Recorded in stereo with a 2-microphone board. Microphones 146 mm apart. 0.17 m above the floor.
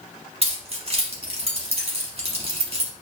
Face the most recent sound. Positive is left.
turn(degrees=-45)  # may be behind; listen again after turning